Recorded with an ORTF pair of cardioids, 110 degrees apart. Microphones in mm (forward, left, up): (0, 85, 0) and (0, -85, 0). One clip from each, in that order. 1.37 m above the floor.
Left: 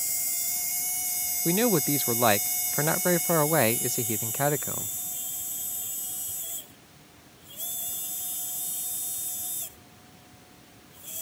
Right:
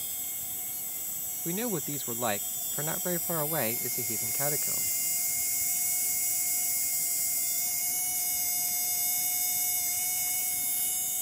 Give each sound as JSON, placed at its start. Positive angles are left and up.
{"t": 1.4, "sound": "a man speaking", "azimuth_deg": 40}